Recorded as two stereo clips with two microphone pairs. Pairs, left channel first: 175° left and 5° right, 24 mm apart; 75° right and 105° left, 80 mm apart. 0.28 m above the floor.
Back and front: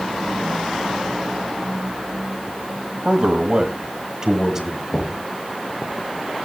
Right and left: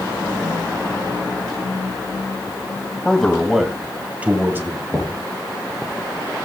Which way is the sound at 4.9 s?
160° right.